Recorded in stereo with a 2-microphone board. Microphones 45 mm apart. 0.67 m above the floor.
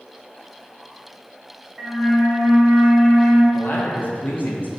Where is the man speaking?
45° left (ahead or behind), 0.6 m.